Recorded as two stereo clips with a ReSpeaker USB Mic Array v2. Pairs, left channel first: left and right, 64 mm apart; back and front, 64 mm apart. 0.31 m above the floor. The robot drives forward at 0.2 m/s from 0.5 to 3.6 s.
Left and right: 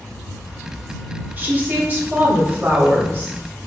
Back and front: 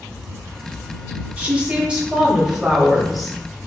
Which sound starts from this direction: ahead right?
A woman speaking, at 1.4 s.